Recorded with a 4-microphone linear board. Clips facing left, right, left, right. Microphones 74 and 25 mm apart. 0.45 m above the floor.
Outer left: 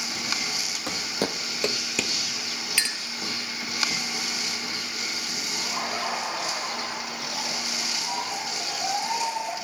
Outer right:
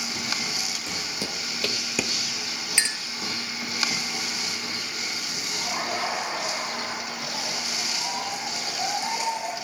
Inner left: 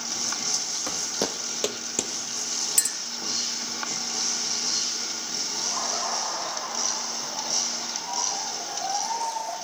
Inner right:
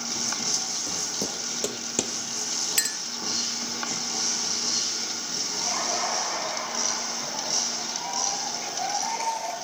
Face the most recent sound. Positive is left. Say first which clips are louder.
# outer right 2 dB, inner right 2 dB
turn(degrees=-65)  # may be behind; listen again after turning